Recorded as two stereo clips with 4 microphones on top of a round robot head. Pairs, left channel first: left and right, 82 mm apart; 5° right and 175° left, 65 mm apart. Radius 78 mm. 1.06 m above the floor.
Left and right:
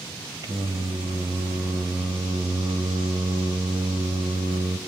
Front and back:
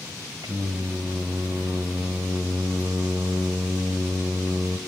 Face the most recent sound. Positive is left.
turn(degrees=-125)